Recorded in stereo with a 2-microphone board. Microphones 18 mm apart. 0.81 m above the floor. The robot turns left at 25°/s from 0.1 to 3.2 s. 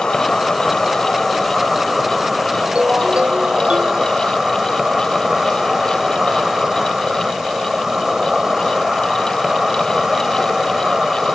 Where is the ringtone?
70° right (ahead or behind); by 4.1 s 85° right.